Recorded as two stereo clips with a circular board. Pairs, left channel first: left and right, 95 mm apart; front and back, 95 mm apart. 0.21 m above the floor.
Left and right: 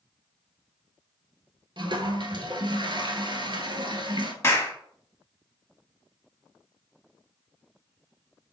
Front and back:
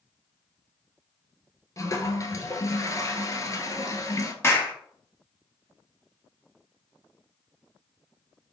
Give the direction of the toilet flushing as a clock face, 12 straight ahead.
2 o'clock.